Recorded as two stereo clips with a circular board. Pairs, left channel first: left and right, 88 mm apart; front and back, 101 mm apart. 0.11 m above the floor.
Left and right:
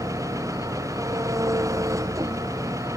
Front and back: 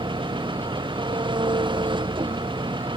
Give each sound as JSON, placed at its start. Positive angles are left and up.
{"t": 0.0, "sound": "an engine running", "azimuth_deg": -145}